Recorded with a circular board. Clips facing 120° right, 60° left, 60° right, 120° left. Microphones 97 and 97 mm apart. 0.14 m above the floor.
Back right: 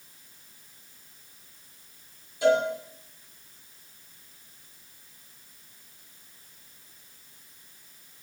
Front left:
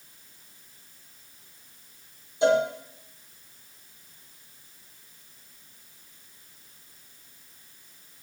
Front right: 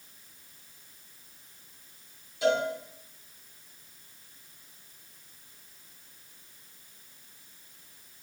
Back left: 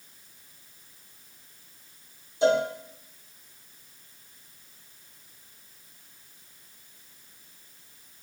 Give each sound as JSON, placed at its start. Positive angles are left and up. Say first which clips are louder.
{"t": 2.4, "sound": "a cowbell", "louder": "front left 1 dB, back left 4 dB", "azimuth_deg": 95, "distance_m": 1.9}